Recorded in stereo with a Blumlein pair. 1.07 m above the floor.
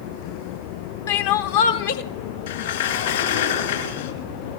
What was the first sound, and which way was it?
Crying, 55° left.